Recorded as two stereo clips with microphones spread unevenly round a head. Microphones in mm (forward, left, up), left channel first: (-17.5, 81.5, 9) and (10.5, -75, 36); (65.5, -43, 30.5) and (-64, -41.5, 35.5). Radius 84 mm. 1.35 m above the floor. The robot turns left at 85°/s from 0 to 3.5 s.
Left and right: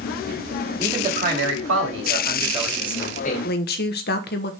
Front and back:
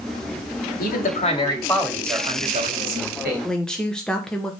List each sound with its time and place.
0.8 s a man speaking: straight ahead, 2.5 m; by 3.5 s 130° left, 2.5 m
3.4 s a woman speaking: 90° left, 1.2 m; by 4.5 s 85° left, 1.2 m